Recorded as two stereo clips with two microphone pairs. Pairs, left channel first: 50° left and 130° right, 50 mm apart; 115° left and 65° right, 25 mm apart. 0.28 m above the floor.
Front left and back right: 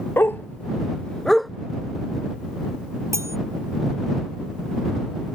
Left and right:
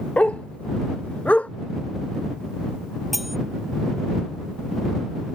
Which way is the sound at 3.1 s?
145° right.